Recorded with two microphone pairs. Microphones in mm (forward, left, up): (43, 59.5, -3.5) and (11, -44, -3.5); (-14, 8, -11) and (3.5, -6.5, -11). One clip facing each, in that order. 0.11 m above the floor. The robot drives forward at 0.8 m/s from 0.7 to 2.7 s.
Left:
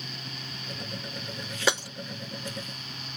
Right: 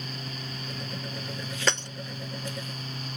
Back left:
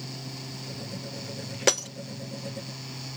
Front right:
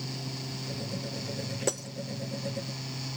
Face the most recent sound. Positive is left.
turn(degrees=160)